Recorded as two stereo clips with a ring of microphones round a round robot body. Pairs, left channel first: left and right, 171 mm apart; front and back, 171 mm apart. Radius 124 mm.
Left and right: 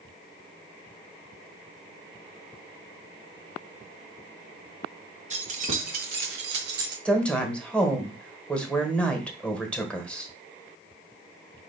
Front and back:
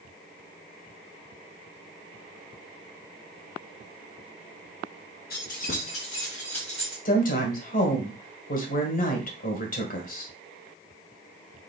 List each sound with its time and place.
5.3 s keys jangling: 45° right, 1.6 m; by 7.0 s 100° right, 1.2 m
7.0 s a woman speaking: 10° left, 1.6 m